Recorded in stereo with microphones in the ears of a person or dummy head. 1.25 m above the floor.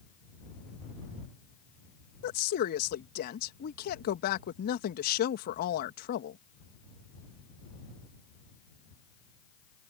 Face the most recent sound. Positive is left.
turn(degrees=60)  # may be behind; listen again after turning